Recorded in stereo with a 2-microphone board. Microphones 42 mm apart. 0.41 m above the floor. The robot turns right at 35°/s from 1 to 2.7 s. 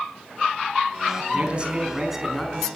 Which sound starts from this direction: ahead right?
A man speaking, at 1.3 s.